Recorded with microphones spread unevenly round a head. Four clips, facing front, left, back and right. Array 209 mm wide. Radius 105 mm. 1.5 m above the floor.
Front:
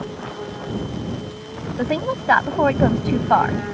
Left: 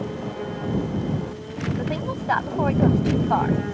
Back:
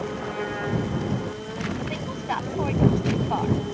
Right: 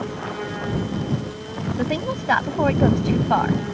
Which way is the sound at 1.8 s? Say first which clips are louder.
Right 3 dB, front 9 dB; 35° right.